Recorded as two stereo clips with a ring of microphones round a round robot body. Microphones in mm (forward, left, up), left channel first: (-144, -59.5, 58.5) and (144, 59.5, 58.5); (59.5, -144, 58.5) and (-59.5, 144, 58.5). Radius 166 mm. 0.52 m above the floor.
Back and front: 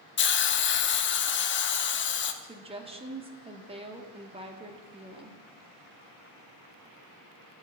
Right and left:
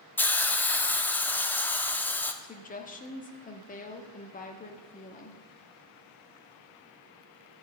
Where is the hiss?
150° right, 0.8 m.